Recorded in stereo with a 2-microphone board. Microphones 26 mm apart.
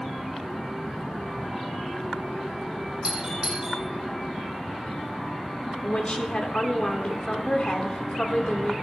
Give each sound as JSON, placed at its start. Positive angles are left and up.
{"t": 3.0, "sound": "a doorbell", "side_deg": -25, "distance_m": 3.5}
{"t": 5.8, "sound": "a woman speaking", "side_deg": 45, "distance_m": 1.3}